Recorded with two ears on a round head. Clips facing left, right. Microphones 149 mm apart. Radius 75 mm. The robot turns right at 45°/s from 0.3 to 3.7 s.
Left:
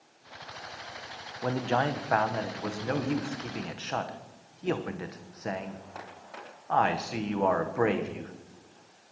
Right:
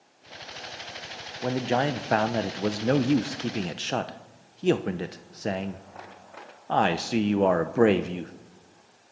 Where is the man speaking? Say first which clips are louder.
Right 3 dB; 160° right, 0.7 m; by 8.3 s 60° right, 0.7 m.